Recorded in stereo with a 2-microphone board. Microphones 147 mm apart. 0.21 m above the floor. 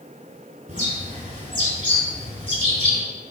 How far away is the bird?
About 3 m.